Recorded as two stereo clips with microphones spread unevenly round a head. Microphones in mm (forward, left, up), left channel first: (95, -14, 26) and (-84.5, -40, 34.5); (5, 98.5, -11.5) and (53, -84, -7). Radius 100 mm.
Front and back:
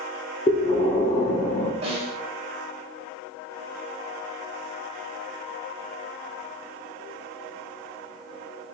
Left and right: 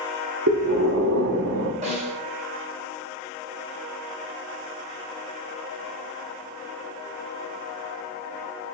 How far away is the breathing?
About 0.8 m.